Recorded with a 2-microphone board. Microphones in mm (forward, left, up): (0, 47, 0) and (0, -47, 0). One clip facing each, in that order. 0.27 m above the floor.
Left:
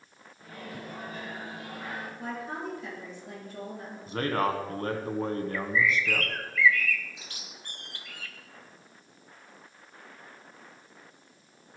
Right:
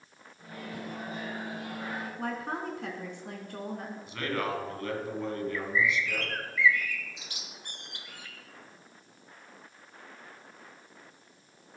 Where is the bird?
20° right (ahead or behind), 1.3 m.